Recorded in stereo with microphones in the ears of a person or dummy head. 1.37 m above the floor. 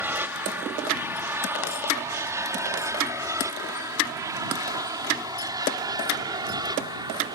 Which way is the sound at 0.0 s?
10° right (ahead or behind).